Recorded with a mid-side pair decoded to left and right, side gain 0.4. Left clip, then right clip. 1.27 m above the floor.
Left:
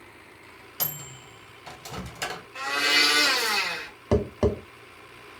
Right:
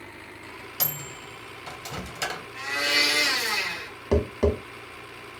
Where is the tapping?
35° left, 0.8 m.